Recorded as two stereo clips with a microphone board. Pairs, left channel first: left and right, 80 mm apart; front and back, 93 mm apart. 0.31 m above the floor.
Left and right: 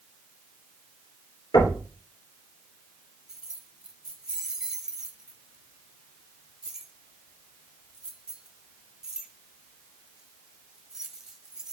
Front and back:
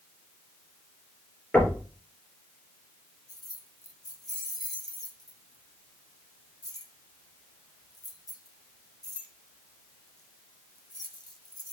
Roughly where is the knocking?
Left.